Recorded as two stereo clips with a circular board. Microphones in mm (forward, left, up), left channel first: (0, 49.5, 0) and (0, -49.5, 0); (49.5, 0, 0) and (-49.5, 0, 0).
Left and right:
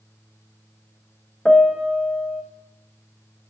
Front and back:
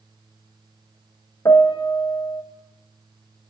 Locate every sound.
1.4 s a piano: 10° left, 0.8 m